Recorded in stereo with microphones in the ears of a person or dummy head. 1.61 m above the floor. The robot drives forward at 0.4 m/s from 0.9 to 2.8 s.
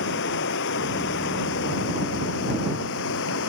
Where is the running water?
65° left (ahead or behind); by 3.5 s 70° left (ahead or behind).